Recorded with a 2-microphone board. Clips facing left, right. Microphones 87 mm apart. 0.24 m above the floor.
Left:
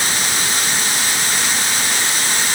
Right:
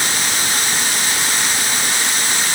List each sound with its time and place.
Only background noise.